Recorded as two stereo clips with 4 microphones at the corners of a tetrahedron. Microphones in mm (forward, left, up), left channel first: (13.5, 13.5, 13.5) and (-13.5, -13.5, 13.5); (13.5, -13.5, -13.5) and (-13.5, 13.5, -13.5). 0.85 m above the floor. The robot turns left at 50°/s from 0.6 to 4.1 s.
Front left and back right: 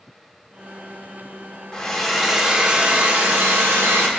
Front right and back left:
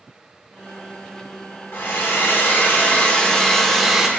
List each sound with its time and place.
1.7 s a hair dryer: 25° right, 1.6 m; by 4.1 s 145° right, 1.6 m